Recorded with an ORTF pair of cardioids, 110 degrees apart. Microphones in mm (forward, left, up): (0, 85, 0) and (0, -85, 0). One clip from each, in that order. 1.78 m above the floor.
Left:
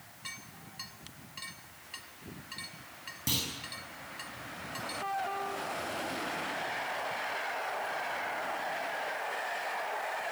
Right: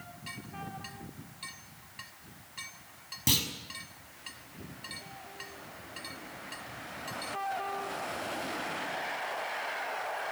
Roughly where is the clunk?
Ahead right.